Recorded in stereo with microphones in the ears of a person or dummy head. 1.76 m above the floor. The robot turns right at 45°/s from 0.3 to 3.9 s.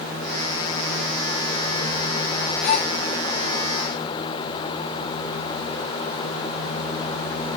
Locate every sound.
2.6 s a gasp: 35° left (ahead or behind), 3.5 m; by 2.9 s 20° left (ahead or behind), 3.5 m